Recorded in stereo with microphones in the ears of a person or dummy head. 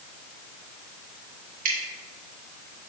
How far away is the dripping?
About 1.6 m.